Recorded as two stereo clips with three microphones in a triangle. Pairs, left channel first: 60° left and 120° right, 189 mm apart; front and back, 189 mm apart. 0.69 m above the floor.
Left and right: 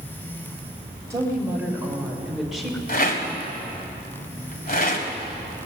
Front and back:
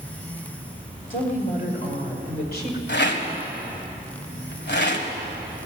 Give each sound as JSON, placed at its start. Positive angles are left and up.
{"t": 1.1, "sound": "a woman speaking", "azimuth_deg": -45, "distance_m": 2.5}
{"t": 2.9, "sound": "a rattle", "azimuth_deg": 20, "distance_m": 1.6}